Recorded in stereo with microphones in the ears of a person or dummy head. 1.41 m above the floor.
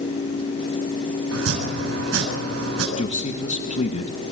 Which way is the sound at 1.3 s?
85° right.